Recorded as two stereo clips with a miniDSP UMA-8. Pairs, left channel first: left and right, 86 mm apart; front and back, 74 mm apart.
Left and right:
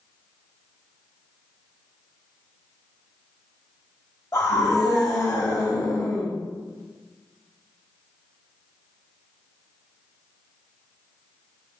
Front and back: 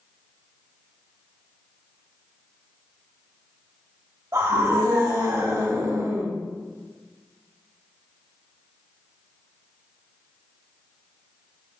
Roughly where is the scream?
Behind left.